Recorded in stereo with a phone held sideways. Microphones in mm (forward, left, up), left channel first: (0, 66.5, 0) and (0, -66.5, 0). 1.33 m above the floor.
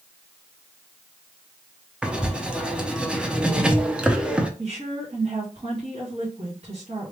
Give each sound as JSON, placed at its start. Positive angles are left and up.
{"t": 2.0, "sound": "writing", "side_deg": -10, "distance_m": 0.7}
{"t": 4.6, "sound": "a woman speaking", "side_deg": -55, "distance_m": 2.0}